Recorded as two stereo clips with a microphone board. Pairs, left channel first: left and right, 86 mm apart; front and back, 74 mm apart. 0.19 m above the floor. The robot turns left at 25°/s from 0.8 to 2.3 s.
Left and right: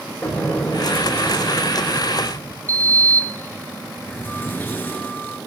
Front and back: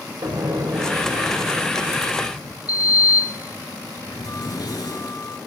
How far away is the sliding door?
About 1.2 m.